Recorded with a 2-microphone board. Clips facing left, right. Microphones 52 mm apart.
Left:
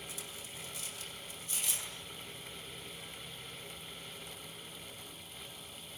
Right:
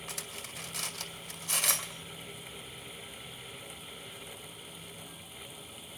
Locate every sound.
0.1 s cutlery clinking: 80° right, 2 m